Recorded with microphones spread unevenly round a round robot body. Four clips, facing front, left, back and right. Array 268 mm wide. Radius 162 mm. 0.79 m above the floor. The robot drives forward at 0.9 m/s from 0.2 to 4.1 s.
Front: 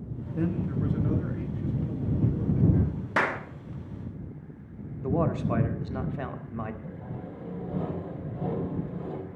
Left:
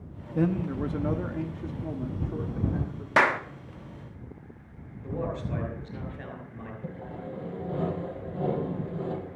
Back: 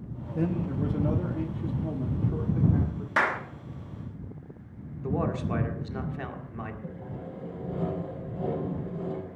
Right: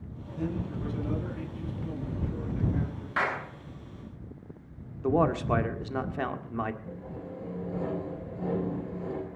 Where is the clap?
50° left, 1.3 m; by 3.4 s 55° left, 1.2 m.